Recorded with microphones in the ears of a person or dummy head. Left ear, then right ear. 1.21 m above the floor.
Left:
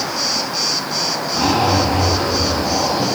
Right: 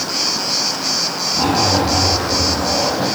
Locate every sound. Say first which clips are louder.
1.3 s a zipper: even; 5° left (ahead or behind), 8.5 m